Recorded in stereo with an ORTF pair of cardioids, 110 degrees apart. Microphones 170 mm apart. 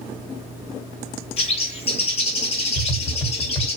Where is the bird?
40° left, 0.9 m.